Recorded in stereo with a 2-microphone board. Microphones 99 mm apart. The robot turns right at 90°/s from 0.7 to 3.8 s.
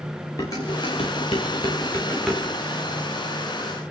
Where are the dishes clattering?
40° left (ahead or behind), 6.5 m; by 2.4 s 15° right (ahead or behind), 6.5 m.